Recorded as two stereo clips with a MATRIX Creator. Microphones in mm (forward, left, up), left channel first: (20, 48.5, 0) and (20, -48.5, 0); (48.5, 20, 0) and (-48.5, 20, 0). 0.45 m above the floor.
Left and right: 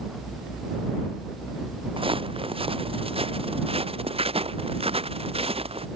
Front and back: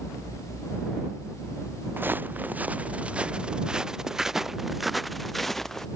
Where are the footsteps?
110° right; by 5.9 s 85° right.